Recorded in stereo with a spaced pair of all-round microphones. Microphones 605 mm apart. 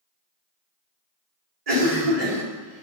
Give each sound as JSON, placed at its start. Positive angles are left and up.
{"t": 1.7, "sound": "a cough", "side_deg": -70, "distance_m": 1.3}